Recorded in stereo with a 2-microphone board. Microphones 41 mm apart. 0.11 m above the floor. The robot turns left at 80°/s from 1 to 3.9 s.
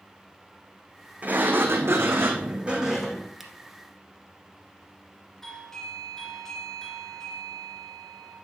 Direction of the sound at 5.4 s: 10° left (ahead or behind).